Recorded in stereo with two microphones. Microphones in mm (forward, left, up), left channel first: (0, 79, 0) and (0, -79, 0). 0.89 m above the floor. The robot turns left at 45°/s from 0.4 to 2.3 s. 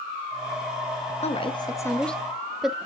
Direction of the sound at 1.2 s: 40° left (ahead or behind).